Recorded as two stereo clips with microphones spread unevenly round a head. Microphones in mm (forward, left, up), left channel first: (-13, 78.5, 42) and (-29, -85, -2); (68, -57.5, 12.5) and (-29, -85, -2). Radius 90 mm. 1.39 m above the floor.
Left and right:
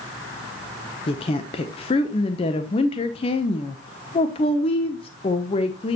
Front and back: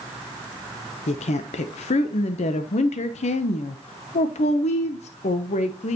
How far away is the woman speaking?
About 0.8 m.